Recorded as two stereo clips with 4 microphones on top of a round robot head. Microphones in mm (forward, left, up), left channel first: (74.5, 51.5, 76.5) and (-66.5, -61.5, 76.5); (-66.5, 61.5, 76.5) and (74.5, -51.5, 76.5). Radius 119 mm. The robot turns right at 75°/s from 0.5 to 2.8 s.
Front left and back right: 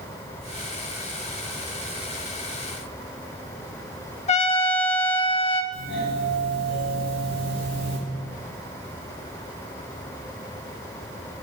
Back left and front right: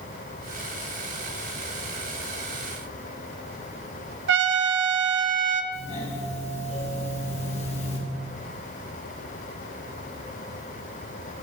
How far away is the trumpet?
About 0.6 m.